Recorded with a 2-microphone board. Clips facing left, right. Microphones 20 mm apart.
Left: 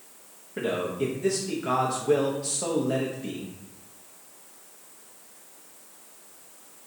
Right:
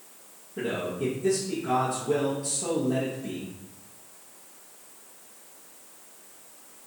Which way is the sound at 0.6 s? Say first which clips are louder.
Left 2 dB; 70° left (ahead or behind).